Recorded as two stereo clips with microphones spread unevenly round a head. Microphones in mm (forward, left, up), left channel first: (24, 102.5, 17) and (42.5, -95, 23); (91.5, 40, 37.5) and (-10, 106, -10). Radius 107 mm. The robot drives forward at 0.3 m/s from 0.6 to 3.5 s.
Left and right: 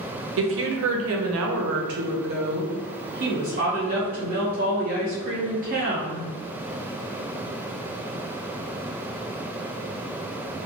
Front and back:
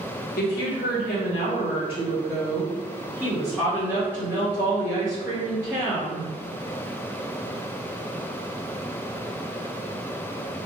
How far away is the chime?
No chime in this recording.